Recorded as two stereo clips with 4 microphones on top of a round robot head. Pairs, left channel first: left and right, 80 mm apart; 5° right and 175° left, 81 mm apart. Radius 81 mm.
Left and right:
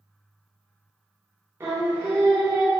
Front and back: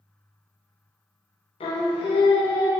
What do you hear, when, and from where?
1.6 s singing: 20° right, 0.5 m